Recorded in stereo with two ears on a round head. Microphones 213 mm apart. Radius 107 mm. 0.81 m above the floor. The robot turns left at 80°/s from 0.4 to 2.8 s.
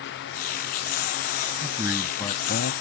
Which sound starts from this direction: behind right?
A man speaking, at 1.6 s.